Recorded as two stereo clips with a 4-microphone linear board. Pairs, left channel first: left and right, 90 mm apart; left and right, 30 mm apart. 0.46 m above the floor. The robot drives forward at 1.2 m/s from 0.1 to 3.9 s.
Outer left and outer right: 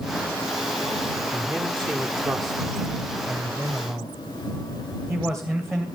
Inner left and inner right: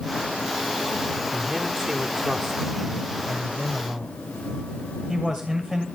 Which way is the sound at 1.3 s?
10° left (ahead or behind).